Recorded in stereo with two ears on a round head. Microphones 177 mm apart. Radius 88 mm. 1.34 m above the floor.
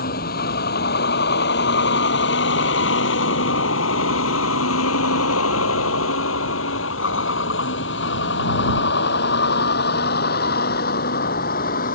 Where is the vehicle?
55° left (ahead or behind); by 12.0 s 50° left (ahead or behind).